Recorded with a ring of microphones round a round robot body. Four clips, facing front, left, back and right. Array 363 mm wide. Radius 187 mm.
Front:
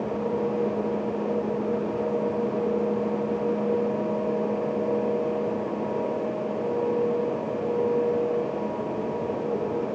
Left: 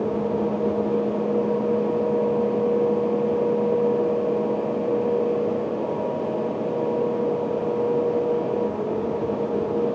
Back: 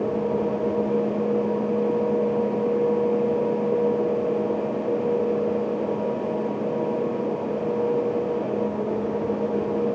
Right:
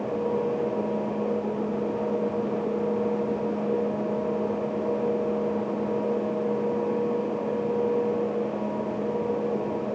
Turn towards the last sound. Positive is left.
No sound to turn to.